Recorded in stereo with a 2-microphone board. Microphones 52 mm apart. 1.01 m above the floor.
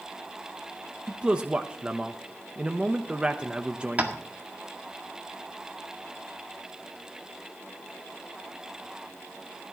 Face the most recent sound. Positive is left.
turn(degrees=-30)  # may be behind; listen again after turning